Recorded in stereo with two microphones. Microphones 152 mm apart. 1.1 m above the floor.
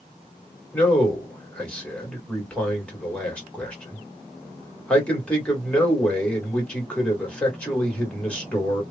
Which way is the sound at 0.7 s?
5° left (ahead or behind).